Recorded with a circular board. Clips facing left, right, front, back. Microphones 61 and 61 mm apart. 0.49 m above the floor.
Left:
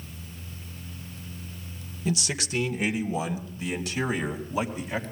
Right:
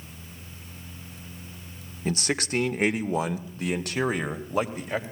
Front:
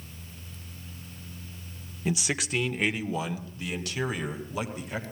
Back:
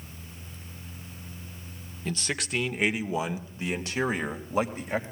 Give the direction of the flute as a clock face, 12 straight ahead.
I don't hear a flute.